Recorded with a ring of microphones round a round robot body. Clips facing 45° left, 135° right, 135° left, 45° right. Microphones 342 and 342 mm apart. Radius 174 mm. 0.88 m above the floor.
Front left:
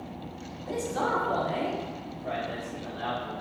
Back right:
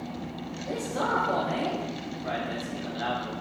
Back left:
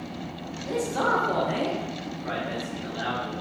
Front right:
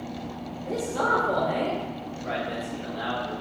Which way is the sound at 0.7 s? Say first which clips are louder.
Front left 1 dB, back left 1 dB; 70° left.